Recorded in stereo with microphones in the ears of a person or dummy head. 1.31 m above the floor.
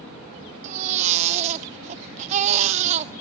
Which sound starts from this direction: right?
A baby crying, at 0.6 s.